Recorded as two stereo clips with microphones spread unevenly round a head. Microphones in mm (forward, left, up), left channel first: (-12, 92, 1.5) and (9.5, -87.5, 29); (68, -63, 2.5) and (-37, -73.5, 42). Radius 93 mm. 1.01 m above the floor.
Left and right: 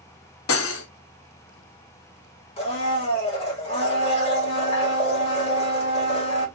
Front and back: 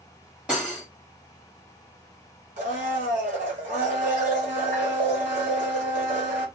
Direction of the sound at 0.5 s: 105° left.